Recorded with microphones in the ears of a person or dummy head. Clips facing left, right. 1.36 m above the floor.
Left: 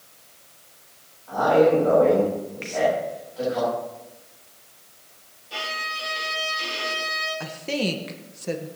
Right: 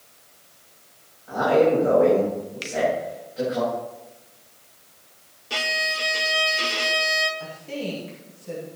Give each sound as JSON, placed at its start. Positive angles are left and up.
{"t": 1.3, "sound": "a man speaking", "side_deg": -25, "distance_m": 7.0}
{"t": 2.6, "sound": "a finger snap", "side_deg": -55, "distance_m": 1.1}
{"t": 5.5, "sound": "a violin", "side_deg": -80, "distance_m": 1.6}
{"t": 7.4, "sound": "a woman speaking", "side_deg": 75, "distance_m": 1.4}